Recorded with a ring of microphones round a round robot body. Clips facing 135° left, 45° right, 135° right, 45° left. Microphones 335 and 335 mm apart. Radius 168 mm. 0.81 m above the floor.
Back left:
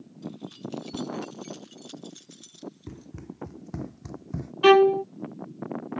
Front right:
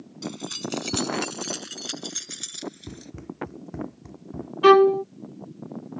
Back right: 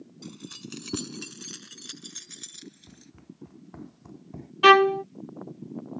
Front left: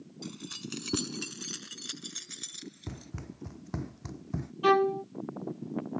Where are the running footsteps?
45° left; by 4.5 s 100° left.